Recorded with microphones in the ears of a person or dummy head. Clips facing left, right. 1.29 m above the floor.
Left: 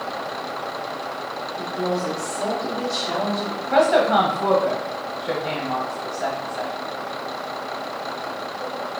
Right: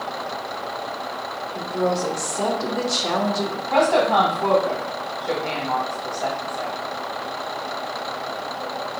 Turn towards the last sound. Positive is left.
turn(degrees=20)  # may be behind; listen again after turning